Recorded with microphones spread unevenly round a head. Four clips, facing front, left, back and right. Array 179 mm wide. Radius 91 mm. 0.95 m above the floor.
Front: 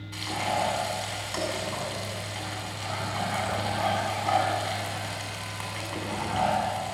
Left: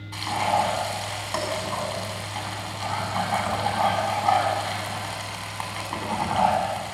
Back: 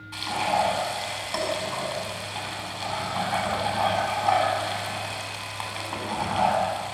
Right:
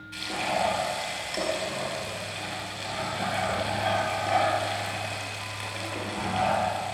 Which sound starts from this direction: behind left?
Frying, at 0.1 s.